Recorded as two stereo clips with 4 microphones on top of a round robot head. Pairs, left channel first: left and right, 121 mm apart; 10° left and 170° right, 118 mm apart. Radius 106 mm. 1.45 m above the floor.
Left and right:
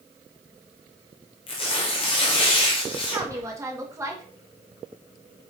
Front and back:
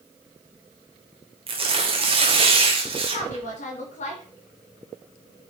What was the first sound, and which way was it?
Tearing paper, 145° left.